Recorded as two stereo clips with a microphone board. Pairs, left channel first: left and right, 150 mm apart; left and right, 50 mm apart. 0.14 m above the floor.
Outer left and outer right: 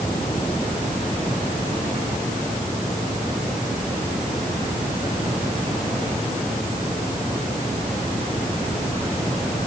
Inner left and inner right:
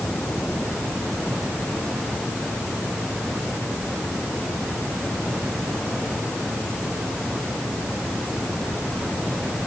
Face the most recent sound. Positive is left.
No sound to turn to.